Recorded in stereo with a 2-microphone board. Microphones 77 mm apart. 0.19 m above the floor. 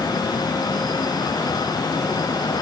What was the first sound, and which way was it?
Only background noise.